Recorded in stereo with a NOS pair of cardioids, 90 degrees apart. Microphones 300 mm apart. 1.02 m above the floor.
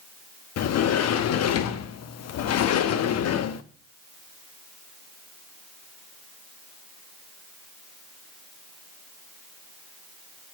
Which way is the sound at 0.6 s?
65° left.